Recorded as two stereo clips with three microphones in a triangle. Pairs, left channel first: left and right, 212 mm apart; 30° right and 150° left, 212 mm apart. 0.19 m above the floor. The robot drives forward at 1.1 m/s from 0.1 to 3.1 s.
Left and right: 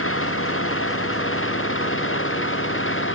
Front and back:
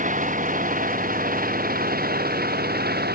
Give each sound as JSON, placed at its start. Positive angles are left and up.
{"t": 0.0, "sound": "an engine running", "azimuth_deg": 100}